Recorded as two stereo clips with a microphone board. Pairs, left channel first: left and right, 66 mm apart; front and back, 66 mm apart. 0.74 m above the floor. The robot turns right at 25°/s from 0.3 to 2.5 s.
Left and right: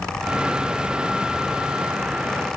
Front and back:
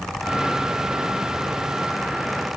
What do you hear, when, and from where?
Only background noise.